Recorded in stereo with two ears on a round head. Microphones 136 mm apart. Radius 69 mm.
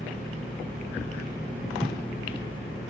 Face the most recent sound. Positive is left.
turn(degrees=10)  # may be behind; listen again after turning